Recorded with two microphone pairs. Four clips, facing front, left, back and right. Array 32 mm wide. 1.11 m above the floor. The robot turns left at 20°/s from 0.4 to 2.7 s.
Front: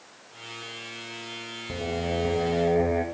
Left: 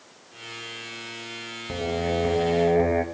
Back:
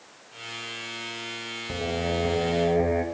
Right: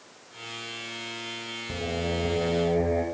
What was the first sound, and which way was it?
Singing, 120° left.